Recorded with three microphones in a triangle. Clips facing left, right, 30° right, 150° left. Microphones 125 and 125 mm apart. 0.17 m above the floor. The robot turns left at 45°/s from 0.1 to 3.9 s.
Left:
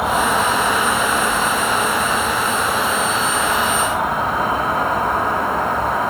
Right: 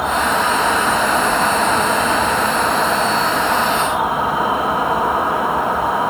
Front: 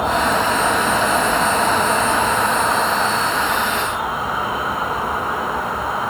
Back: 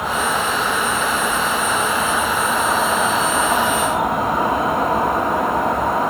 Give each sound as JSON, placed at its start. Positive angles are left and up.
{"t": 0.0, "sound": "an insect", "azimuth_deg": 0, "distance_m": 2.0}